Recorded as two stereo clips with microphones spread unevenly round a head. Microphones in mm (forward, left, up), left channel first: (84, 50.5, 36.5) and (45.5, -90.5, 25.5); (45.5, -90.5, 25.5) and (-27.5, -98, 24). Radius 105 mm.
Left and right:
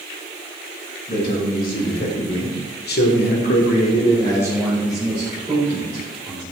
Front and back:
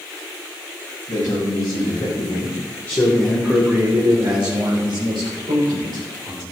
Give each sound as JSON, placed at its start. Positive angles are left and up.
{"t": 1.1, "sound": "a man speaking", "azimuth_deg": 50, "distance_m": 3.0}